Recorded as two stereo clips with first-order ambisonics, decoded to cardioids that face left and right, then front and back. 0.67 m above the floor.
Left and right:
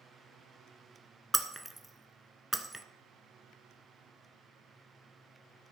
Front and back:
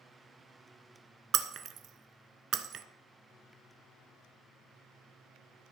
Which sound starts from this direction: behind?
Breaking glass, at 1.3 s.